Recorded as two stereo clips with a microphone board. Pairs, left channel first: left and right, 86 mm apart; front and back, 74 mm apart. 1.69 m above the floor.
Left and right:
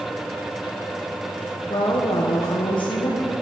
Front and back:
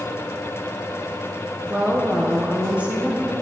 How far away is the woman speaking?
About 1.2 m.